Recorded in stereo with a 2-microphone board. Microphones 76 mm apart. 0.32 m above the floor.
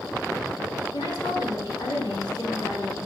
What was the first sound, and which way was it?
A woman speaking, 65° left (ahead or behind).